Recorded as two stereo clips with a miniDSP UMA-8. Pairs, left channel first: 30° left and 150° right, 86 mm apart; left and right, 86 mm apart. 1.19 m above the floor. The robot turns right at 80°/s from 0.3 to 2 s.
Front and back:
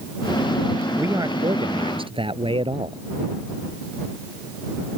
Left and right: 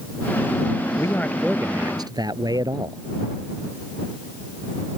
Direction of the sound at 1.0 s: 145° left.